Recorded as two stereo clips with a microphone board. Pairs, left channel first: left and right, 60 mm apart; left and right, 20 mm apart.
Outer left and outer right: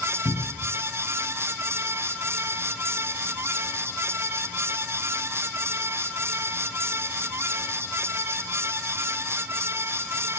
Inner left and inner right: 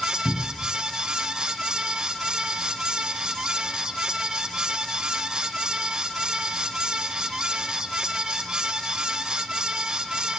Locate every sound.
0.2 s a cupboard door: 60° left (ahead or behind), 1.6 m